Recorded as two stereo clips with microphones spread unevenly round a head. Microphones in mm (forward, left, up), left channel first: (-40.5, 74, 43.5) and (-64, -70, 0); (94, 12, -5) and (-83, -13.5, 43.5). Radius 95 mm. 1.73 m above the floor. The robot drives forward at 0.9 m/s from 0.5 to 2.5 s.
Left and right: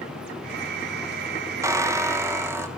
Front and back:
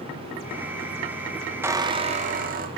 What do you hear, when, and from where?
1.6 s a squeak: 175° left, 0.9 m; by 2.7 s straight behind, 1.4 m